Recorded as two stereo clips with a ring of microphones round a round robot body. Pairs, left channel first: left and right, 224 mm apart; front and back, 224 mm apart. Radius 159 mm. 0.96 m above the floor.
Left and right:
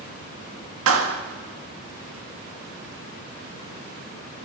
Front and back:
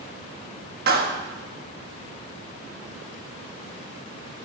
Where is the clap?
120° right, 1.6 m.